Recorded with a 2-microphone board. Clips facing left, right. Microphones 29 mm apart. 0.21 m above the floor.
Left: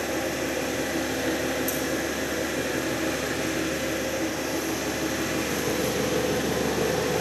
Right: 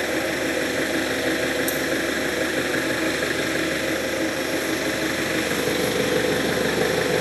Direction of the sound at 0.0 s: 70° right (ahead or behind).